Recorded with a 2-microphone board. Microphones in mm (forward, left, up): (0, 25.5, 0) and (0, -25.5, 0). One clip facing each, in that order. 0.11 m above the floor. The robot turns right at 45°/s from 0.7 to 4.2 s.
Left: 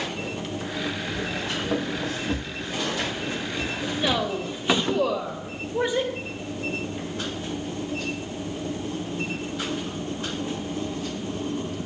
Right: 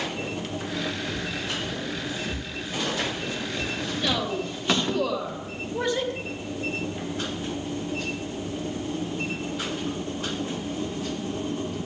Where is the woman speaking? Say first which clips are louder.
Left 2 dB; 20° left (ahead or behind), 3 m; by 6.1 s 10° left (ahead or behind), 3 m.